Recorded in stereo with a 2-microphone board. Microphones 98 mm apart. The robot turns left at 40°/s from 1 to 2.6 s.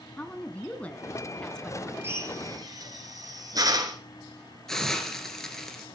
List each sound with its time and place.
0.2 s a woman speaking: 10° left (ahead or behind), 1.0 m; by 1.9 s centre (ahead or behind), 1.0 m
2.0 s a drill: 25° right (ahead or behind), 2.5 m; by 4.0 s 40° right (ahead or behind), 2.5 m
4.7 s a hiss: 5° left (ahead or behind), 2.5 m